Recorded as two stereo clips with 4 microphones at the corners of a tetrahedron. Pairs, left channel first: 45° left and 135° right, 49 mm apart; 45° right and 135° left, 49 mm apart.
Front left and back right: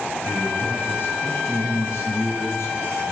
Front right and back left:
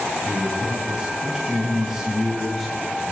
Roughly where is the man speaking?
Left.